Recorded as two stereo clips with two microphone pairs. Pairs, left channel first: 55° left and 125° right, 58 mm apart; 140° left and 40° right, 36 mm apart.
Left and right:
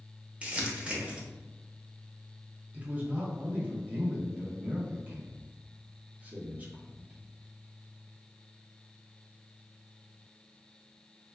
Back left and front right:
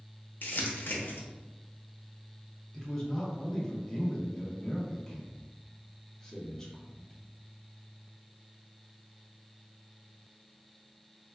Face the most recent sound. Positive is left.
turn(degrees=-165)